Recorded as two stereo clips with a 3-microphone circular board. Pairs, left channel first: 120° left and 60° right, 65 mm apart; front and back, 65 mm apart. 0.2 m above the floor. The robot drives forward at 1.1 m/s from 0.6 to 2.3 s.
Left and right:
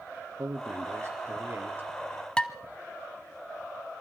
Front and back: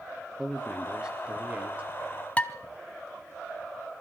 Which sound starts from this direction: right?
A man speaking, at 0.4 s.